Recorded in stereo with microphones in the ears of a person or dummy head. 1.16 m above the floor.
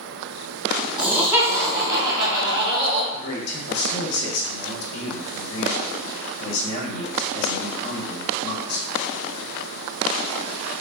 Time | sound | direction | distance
1.0 | laughter | 5° right (ahead or behind) | 1.2 m
3.1 | a man speaking | 85° left | 0.9 m